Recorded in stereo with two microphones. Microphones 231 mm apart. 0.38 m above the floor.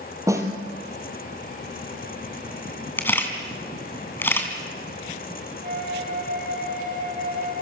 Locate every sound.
0.3 s a snare drum: 15° right (ahead or behind), 3.5 m
3.0 s a camera shutter: 10° left (ahead or behind), 3.5 m
5.6 s a flute: 40° right (ahead or behind), 6 m